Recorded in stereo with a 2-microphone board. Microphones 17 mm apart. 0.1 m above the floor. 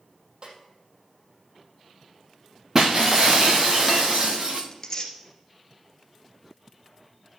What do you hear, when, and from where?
0.4 s a snare drum: 40° right (ahead or behind), 3 m
2.8 s breaking glass: 15° right (ahead or behind), 1.5 m
4.7 s tearing paper: 25° left (ahead or behind), 2 m